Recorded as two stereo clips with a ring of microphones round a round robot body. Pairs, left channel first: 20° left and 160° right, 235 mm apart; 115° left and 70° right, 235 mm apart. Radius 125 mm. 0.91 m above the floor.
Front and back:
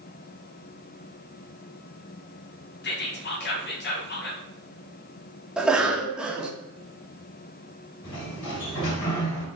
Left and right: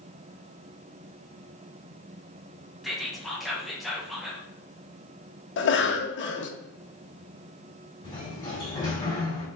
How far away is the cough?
About 0.7 m.